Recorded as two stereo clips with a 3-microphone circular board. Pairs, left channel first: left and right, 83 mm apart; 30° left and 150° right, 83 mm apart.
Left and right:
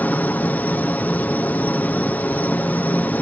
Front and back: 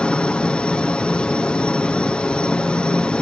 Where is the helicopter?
85° left.